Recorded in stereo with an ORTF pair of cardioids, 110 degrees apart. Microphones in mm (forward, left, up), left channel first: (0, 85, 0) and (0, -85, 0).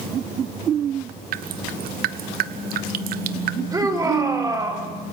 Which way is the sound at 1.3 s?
70° right.